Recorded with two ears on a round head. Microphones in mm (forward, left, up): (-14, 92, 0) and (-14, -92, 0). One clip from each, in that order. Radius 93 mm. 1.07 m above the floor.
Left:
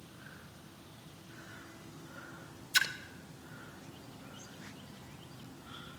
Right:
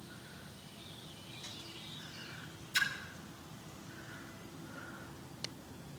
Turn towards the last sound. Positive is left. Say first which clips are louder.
# left 3 dB
turn(degrees=40)  # may be behind; listen again after turning